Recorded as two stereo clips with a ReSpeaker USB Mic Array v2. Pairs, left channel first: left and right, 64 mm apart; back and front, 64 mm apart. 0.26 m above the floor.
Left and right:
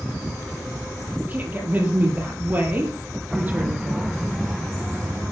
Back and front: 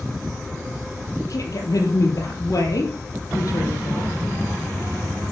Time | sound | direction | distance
1.2 | a woman speaking | 155° right | 8.5 m